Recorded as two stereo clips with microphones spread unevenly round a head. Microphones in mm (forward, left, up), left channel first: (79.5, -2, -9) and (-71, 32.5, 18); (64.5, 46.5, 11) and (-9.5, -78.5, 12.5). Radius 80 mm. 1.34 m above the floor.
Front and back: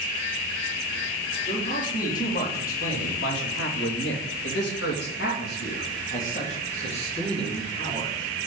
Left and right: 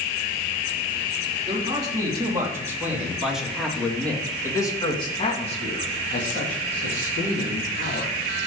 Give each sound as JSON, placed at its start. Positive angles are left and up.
{"t": 1.5, "sound": "a man speaking", "azimuth_deg": -60, "distance_m": 3.5}